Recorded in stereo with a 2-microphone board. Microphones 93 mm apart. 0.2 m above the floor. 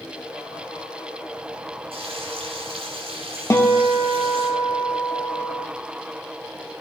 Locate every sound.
1.9 s frying: 75° right (ahead or behind), 5.5 m
3.5 s a guitar: 25° left (ahead or behind), 1.2 m